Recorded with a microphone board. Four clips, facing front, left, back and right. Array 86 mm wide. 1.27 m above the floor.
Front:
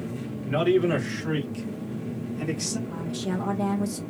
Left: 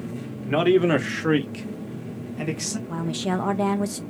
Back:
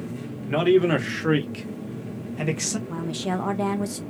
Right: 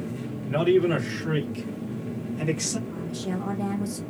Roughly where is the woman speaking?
Behind left.